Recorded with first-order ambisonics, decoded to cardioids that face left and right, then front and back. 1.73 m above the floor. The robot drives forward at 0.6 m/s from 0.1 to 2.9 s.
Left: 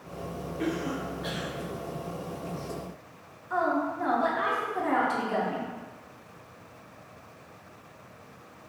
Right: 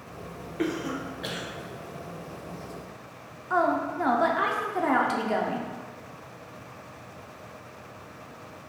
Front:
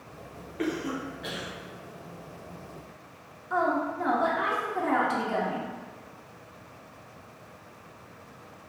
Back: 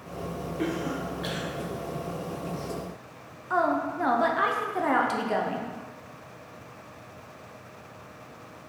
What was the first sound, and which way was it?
A cough, 70° right.